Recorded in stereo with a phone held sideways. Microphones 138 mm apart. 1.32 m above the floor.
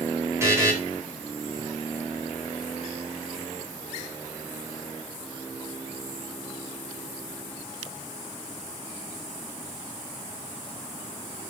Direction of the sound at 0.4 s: 20° right (ahead or behind).